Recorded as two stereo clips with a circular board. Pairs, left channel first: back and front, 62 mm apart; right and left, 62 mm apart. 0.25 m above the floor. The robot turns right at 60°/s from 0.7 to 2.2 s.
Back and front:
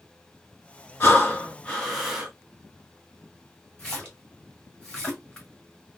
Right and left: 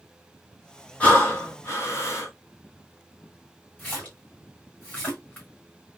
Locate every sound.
1.0 s breathing: 150° right, 1.2 m; by 2.3 s 80° right, 1.2 m
3.8 s a splash: 115° right, 1.8 m